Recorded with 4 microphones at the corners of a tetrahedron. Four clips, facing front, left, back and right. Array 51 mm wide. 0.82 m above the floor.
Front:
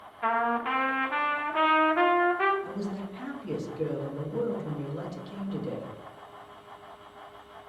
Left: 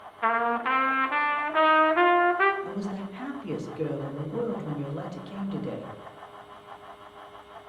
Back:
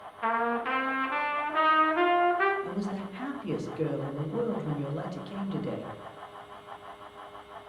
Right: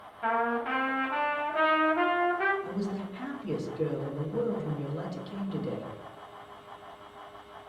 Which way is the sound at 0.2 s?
85° left.